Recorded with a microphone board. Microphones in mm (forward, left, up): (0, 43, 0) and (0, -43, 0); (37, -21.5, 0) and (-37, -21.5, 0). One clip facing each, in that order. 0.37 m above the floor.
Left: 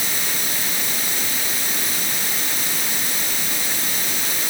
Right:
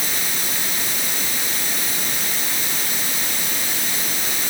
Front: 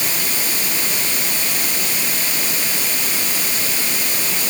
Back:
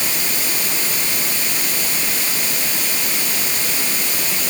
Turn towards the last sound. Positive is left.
No sound to turn to.